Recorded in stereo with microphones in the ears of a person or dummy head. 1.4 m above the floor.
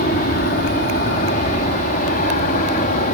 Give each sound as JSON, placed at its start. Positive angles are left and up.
{"t": 0.0, "sound": "an aircraft", "side_deg": 50}